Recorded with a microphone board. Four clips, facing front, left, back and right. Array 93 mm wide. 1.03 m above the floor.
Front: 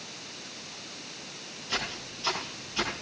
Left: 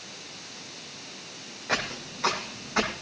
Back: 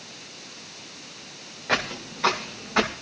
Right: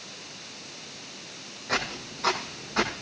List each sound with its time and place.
1.7 s footsteps: 165° left, 7.5 m; by 2.9 s 170° left, 8.5 m